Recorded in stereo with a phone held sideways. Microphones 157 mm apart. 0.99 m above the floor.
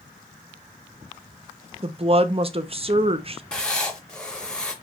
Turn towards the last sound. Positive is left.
turn(degrees=5)  # may be behind; listen again after turning